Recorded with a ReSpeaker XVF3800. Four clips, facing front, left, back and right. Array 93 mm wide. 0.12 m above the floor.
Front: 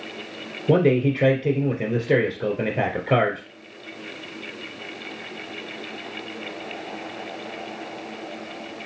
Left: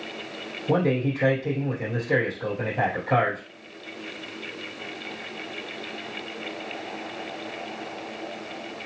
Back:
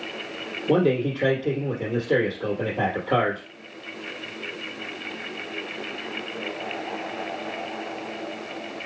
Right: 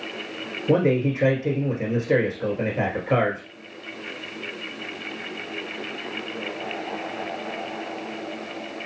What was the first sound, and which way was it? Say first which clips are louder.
A man speaking: right 3 dB, front 3 dB; 20° right.